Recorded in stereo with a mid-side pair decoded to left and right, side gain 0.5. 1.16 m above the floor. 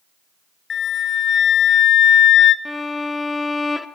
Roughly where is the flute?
Ahead left.